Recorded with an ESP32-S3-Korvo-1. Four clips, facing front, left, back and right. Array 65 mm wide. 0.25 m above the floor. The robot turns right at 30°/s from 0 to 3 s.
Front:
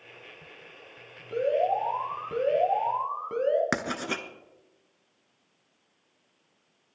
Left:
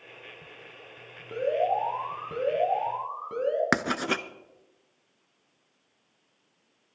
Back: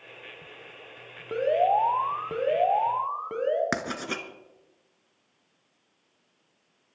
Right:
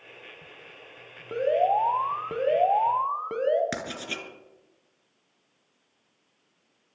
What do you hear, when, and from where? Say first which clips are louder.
1.3 s an alarm: right 3 dB, back 3 dB; 150° right, 1.7 m; by 3.6 s 100° right, 1.7 m
3.7 s writing: left 8 dB, front 1 dB; 90° left, 0.8 m